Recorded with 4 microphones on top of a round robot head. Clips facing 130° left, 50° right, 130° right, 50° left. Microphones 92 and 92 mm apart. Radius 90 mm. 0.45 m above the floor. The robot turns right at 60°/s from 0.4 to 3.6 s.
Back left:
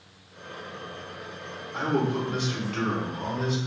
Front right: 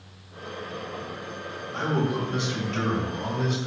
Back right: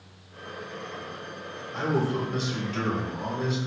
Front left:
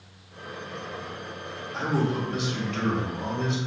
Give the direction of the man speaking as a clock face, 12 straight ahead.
5 o'clock.